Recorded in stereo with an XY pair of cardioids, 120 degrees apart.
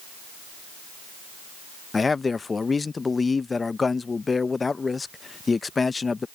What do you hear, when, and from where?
1.9 s a man speaking: 25° left